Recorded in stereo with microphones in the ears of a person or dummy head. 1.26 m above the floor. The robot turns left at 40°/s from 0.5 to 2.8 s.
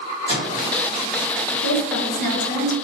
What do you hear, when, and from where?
0.3 s a microwave: 20° right (ahead or behind), 0.9 m; by 0.7 s 15° right (ahead or behind), 0.9 m
1.6 s a woman speaking: 85° left, 0.6 m; by 2.7 s 40° left, 0.6 m